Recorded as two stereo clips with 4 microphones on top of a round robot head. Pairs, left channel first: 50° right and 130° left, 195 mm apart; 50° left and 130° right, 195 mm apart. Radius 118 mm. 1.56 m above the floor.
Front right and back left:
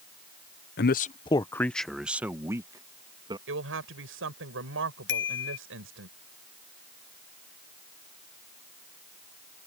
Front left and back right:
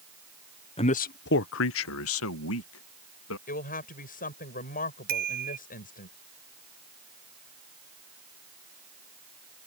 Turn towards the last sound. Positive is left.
turn(degrees=-80)